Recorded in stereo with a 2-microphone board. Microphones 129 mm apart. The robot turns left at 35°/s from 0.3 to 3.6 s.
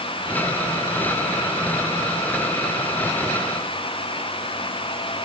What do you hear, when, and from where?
Only background noise.